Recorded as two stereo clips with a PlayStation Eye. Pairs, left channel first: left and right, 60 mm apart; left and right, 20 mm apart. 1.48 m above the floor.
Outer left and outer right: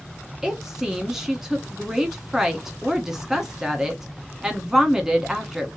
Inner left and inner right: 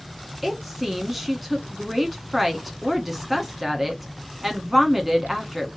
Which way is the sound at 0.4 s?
10° right (ahead or behind).